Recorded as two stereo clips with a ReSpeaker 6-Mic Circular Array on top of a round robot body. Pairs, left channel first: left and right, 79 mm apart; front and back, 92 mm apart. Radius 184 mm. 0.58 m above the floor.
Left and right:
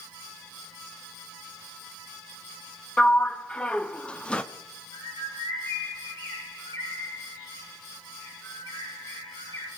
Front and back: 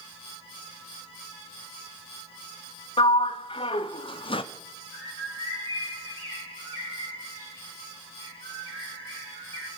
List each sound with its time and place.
3.0 s a sliding door: 15° left, 0.7 m
4.9 s a bird: 60° left, 5.5 m